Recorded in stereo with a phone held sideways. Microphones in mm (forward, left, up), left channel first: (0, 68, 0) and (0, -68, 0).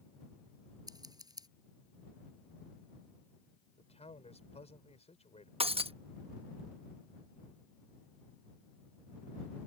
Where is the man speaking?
50° left (ahead or behind).